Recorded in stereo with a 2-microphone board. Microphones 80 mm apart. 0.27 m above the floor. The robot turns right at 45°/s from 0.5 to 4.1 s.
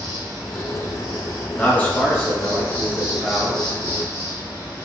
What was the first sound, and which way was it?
An insect, 130° right.